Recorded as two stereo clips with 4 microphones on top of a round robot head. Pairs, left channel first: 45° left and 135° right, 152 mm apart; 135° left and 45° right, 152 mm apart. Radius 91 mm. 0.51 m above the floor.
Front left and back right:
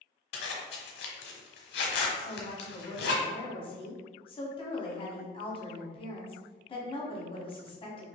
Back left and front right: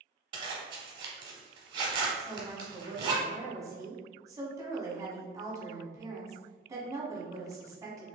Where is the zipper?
20° left, 0.7 m.